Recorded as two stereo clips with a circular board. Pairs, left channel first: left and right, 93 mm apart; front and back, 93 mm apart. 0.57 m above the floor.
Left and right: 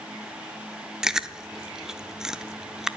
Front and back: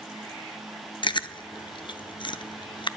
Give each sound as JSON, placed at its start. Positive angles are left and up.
{"t": 1.0, "sound": "chewing", "azimuth_deg": -5, "distance_m": 0.6}